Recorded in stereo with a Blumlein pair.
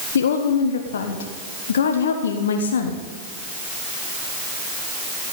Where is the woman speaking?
65° left, 1.3 m.